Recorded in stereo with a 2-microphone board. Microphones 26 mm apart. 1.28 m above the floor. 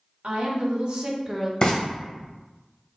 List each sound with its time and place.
0.2 s a woman speaking: 60° right (ahead or behind), 1.8 m; by 1.5 s 5° left (ahead or behind), 0.8 m
1.6 s frying: 30° left (ahead or behind), 1.4 m